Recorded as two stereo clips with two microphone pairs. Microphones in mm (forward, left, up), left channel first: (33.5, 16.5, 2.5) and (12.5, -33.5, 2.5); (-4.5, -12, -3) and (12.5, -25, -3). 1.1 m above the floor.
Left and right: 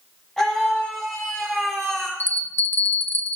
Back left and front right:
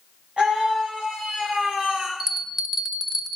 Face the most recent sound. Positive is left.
turn(degrees=25)